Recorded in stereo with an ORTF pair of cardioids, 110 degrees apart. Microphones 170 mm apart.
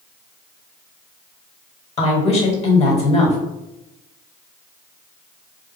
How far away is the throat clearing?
No throat clearing in this recording.